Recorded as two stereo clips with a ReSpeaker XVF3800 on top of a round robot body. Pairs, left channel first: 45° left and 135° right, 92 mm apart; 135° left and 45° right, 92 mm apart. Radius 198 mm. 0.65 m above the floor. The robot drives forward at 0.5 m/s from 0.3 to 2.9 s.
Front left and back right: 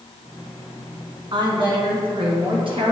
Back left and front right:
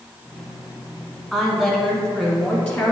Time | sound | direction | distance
1.3 | a woman speaking | 145° right | 1.6 m